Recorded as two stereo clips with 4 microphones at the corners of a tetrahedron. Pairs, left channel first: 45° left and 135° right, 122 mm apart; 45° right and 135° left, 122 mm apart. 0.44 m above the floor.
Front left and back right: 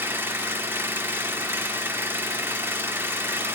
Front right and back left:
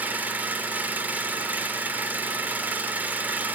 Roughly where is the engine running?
Behind.